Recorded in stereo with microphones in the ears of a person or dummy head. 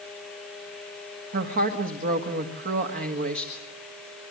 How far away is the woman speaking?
About 1.7 m.